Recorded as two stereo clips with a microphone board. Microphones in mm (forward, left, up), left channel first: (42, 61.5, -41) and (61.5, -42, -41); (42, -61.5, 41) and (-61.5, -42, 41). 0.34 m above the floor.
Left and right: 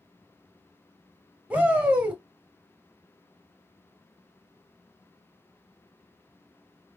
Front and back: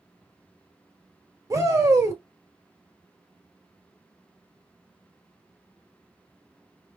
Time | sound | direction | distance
1.5 | a shout | 150° right | 1.3 m